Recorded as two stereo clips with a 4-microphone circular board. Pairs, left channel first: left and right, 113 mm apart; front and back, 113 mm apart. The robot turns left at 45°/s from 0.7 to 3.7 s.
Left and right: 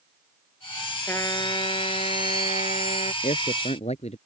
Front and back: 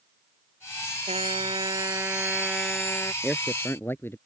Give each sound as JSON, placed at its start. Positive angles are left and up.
{"t": 1.1, "sound": "a trumpet", "azimuth_deg": 160}
{"t": 3.2, "sound": "a man speaking", "azimuth_deg": 90}